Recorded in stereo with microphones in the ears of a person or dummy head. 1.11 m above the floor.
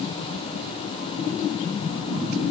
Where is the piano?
I don't hear a piano.